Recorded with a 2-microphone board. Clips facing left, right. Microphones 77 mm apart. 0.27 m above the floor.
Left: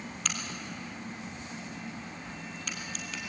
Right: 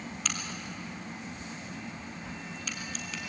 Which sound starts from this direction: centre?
A crack, at 0.2 s.